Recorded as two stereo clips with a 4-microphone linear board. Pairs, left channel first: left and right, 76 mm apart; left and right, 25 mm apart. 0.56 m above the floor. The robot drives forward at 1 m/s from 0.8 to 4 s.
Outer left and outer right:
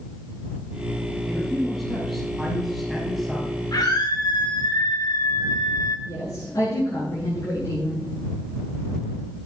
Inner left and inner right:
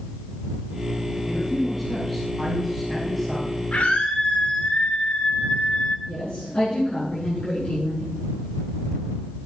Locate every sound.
1.3 s a man speaking: centre (ahead or behind), 6.5 m
3.7 s a scream: 55° left (ahead or behind), 2.0 m
6.1 s a woman speaking: 45° left (ahead or behind), 8 m